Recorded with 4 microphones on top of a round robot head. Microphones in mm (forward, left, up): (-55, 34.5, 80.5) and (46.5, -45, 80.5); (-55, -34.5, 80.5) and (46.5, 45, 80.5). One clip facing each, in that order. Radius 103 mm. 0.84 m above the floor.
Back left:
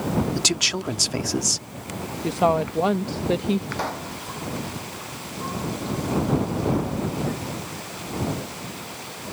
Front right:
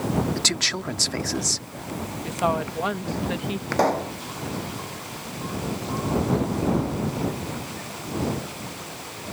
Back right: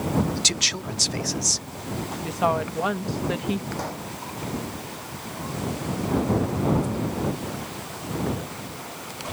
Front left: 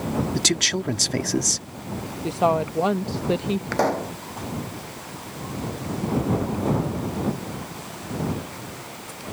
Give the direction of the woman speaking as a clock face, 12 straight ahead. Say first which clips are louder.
Back left 5 dB, front left 3 dB; 9 o'clock.